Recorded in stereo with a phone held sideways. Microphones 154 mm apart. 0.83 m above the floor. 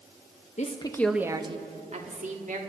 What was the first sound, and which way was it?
A woman speaking, 50° left (ahead or behind).